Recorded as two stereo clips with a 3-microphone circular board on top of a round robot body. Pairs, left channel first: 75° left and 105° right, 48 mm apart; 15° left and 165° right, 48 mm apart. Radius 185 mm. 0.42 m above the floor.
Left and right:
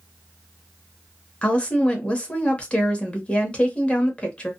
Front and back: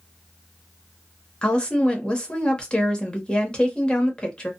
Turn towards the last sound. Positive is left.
turn(degrees=55)